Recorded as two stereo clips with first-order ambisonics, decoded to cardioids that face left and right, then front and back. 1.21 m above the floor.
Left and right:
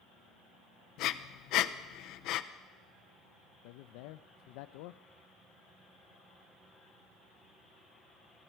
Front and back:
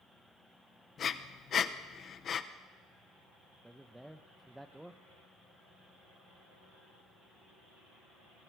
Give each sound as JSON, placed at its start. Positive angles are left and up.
{"t": 1.0, "sound": "breathing", "azimuth_deg": 60, "distance_m": 0.8}
{"t": 3.6, "sound": "a man speaking", "azimuth_deg": 95, "distance_m": 0.6}